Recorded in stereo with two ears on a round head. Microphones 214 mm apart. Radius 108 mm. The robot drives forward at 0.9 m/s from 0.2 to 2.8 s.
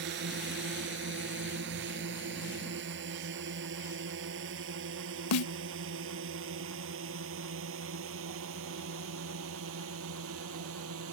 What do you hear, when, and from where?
0.0 s a drone: 50° right (ahead or behind); by 11.1 s 65° right (ahead or behind)
5.3 s a snare drum: 65° left (ahead or behind)